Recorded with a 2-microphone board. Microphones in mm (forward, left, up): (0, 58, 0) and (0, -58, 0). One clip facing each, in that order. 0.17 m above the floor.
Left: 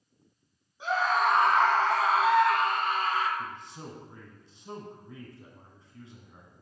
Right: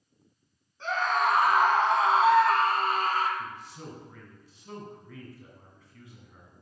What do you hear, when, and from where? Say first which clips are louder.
0.8 s a scream: left 1 dB; 10° left (ahead or behind), 1.2 m; by 3.3 s 45° right (ahead or behind), 1.7 m
3.4 s a man speaking: even; 25° left (ahead or behind), 1.6 m